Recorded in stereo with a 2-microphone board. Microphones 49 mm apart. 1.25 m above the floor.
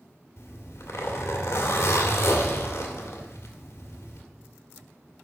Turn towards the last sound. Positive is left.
turn(degrees=70)  # may be behind; listen again after turning